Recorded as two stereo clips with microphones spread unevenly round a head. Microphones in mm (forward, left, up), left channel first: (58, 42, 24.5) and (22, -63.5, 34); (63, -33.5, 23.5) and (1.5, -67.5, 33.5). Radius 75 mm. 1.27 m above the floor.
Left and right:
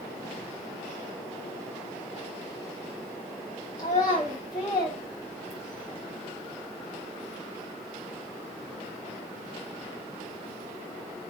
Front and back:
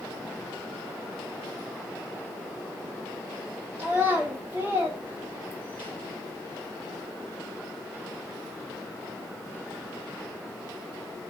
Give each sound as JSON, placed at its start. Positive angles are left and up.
{"t": 3.8, "sound": "a child speaking", "azimuth_deg": 135, "distance_m": 1.6}